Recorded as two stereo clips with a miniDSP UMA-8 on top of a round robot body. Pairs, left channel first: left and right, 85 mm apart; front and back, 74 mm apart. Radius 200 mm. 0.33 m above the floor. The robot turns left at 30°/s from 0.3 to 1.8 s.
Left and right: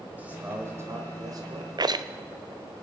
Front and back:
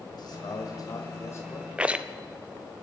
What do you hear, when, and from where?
0.1 s a man speaking: 20° right, 1.8 m; by 1.7 s 60° right, 1.8 m
1.8 s a rattle: 105° right, 0.8 m; by 2.0 s 110° right, 0.8 m